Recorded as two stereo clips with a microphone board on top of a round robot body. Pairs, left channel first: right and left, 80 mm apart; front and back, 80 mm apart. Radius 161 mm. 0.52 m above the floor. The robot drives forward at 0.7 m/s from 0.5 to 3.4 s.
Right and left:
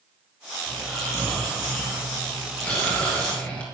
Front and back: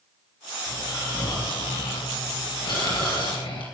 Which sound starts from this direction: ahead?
Snoring, at 0.7 s.